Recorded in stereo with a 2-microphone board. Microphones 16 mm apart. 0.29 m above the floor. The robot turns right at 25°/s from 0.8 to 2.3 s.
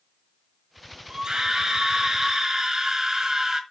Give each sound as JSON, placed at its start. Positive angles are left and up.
{"t": 1.1, "sound": "a scream", "side_deg": -45, "distance_m": 1.5}